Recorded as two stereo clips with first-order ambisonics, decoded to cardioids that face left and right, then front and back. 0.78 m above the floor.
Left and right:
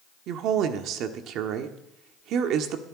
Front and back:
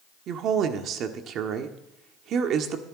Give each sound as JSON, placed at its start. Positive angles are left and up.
{"t": 0.3, "sound": "a woman speaking", "azimuth_deg": -130, "distance_m": 1.5}